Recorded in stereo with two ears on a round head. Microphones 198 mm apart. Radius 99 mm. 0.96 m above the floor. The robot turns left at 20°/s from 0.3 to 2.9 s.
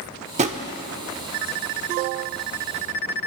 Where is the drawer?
30° right (ahead or behind), 0.7 m; by 0.6 s 35° right (ahead or behind), 0.7 m.